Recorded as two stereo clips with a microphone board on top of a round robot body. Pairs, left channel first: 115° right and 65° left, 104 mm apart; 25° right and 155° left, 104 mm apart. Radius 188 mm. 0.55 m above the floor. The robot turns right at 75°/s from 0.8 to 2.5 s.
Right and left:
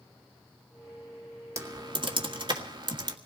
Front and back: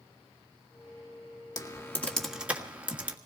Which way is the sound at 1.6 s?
15° left.